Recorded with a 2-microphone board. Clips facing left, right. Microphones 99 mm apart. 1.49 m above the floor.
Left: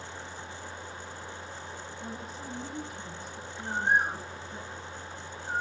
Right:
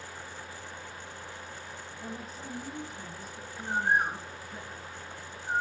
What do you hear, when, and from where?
2.0 s a woman speaking: centre (ahead or behind), 10 m
3.6 s a bird: 25° right (ahead or behind), 8.5 m